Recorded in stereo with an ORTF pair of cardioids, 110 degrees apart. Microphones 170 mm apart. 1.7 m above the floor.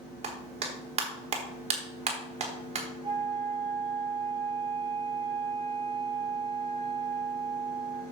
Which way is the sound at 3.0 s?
35° right.